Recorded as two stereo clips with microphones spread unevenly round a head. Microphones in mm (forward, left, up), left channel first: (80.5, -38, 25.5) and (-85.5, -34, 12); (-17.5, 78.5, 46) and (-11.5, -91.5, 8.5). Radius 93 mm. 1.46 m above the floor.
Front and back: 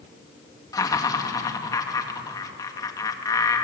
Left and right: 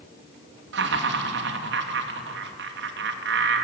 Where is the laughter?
70° right, 2.5 m.